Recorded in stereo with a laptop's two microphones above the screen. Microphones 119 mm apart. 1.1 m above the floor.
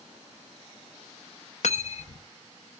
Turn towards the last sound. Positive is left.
turn(degrees=65)  # may be behind; listen again after turning